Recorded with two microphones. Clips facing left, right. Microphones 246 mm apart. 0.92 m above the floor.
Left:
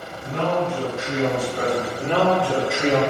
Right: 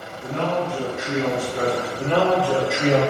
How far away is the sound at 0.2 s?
About 1.0 m.